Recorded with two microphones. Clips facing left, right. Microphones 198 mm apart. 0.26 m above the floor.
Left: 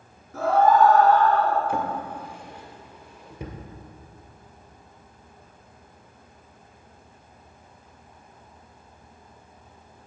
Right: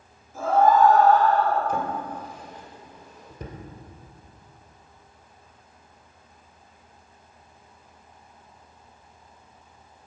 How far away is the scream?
About 3 m.